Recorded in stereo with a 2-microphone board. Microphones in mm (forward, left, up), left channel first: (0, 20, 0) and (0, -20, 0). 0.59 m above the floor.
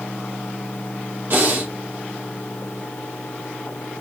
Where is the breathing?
50° right (ahead or behind), 1.4 m.